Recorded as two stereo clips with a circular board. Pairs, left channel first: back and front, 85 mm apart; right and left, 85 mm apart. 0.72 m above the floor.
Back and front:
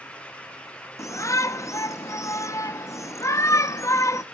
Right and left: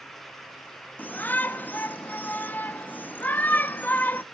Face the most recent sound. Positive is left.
turn(degrees=-150)